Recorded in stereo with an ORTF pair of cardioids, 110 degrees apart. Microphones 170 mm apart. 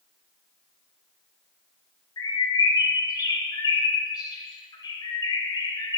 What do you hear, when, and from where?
2.2 s a bird: 20° left, 0.8 m